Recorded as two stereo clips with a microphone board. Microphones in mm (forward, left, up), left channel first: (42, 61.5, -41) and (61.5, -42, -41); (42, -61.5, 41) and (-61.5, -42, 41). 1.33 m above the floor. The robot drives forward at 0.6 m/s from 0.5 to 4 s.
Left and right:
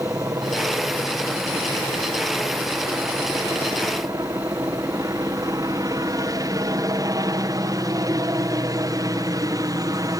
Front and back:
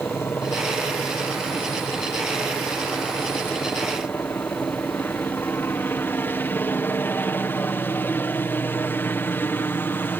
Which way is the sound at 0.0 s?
60° right.